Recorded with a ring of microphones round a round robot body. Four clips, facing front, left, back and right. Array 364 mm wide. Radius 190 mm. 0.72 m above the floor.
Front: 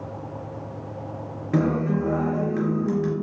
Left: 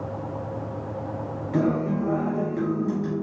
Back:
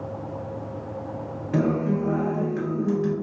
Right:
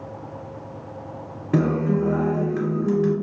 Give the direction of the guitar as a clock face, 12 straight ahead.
2 o'clock.